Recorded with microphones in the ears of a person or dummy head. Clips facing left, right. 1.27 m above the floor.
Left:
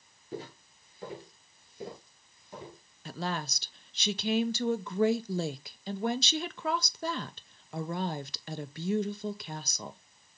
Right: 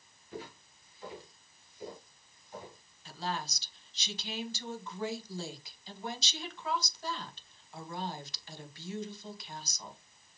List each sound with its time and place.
0.3 s footsteps: 30° left (ahead or behind), 1.5 m; by 2.8 s 50° left (ahead or behind), 2 m
3.0 s a woman speaking: 50° left (ahead or behind), 0.8 m